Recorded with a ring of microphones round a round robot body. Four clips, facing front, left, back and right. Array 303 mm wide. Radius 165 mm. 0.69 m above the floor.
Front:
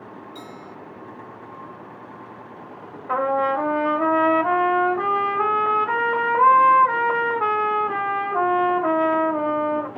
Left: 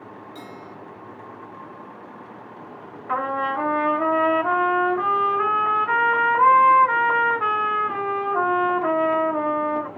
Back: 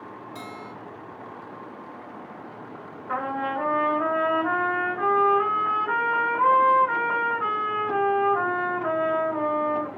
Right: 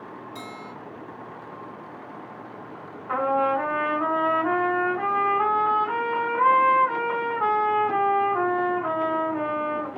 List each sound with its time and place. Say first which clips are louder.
0.3 s a bell: even, even; 135° right, 3 m
3.1 s a trumpet: right 2 dB, front 7 dB; 15° left, 2.5 m